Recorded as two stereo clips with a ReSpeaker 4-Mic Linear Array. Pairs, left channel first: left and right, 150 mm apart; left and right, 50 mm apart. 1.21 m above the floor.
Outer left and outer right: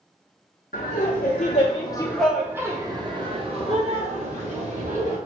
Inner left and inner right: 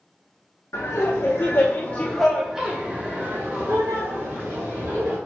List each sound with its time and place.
0.7 s laughter: 80° left, 0.8 m; by 5.2 s 50° right (ahead or behind), 2.0 m